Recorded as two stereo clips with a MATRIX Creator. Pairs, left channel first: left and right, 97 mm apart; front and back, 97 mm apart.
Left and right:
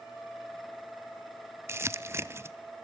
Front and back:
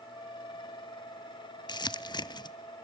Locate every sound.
1.7 s crumpling: 30° right, 0.5 m